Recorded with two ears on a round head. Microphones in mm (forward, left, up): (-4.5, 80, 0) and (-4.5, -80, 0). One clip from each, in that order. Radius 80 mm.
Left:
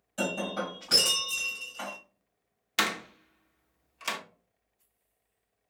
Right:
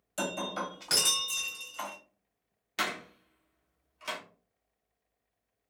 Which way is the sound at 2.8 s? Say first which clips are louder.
Left 5 dB; 30° left (ahead or behind).